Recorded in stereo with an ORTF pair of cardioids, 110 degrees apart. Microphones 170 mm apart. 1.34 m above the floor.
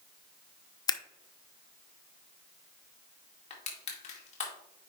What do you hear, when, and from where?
0.9 s scissors: 25° left, 0.6 m
3.5 s crushing: 40° left, 2 m